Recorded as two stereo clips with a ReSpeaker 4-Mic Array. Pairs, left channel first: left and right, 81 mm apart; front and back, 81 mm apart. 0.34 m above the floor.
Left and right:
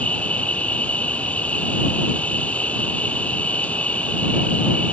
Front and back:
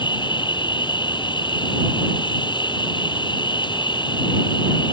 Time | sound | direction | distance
0.0 | an insect | 15° left | ?